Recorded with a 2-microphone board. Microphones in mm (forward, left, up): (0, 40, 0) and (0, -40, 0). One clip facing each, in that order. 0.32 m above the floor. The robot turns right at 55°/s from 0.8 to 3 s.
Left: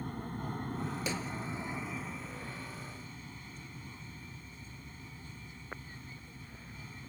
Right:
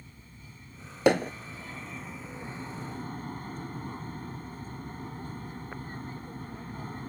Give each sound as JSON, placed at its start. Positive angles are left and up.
{"t": 0.0, "sound": "an aircraft", "azimuth_deg": 110}
{"t": 1.1, "sound": "hammering", "side_deg": -65}